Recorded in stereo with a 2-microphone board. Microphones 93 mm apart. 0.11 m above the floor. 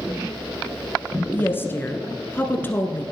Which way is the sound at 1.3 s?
25° left (ahead or behind).